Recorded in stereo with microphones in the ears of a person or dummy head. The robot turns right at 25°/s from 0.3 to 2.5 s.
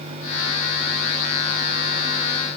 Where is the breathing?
I don't hear breathing.